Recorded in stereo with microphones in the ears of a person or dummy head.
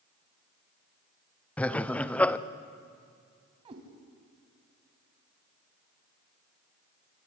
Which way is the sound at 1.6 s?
10° left (ahead or behind).